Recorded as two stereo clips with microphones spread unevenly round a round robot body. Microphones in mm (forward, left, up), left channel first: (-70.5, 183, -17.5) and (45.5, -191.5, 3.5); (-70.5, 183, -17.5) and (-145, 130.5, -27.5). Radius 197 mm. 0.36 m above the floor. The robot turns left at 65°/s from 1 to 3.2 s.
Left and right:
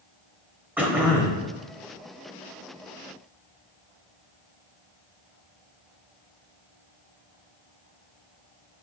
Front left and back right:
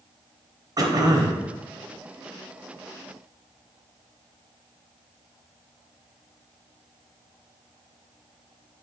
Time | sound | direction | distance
0.8 | throat clearing | 160° right | 1.1 m